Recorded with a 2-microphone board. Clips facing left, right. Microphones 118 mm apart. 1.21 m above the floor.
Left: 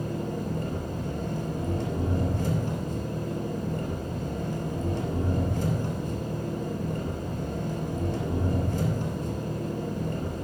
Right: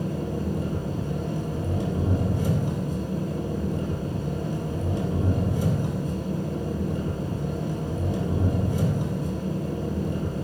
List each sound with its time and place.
0.0 s an engine running: 15° right (ahead or behind), 3 m